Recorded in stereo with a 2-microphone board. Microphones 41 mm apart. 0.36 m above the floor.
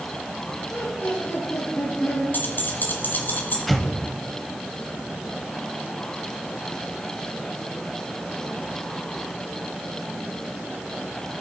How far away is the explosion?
About 0.8 m.